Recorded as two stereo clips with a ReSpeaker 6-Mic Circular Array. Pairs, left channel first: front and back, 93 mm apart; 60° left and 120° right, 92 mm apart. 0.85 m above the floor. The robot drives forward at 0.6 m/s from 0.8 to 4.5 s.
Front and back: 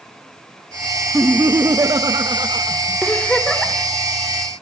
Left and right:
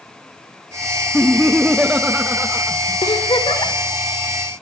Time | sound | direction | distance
1.1 | laughter | 125° left | 0.7 m
3.0 | a giggle | 75° left | 3.5 m